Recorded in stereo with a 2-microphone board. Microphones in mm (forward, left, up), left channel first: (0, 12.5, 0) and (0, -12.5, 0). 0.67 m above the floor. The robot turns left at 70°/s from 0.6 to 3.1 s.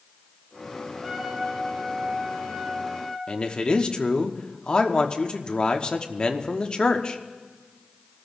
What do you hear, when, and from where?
1.0 s a trumpet: 25° right, 4.5 m; by 3.2 s 175° right, 4.5 m
3.3 s a man speaking: 35° left (ahead or behind), 1.1 m